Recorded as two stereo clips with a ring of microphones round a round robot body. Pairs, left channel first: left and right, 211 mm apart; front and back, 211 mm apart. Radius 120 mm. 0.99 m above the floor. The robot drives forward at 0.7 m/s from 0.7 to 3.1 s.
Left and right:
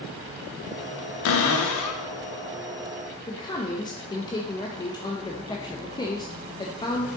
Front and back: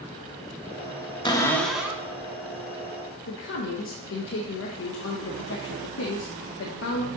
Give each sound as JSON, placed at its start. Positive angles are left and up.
{"t": 1.2, "sound": "a cupboard door", "azimuth_deg": 70, "distance_m": 1.0}
{"t": 3.3, "sound": "a man speaking", "azimuth_deg": 20, "distance_m": 0.9}